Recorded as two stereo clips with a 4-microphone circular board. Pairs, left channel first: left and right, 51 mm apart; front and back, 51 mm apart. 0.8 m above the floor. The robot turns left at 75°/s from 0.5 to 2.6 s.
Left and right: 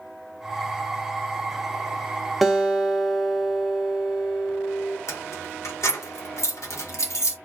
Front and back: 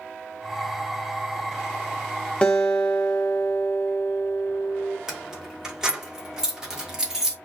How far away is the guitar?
About 0.9 m.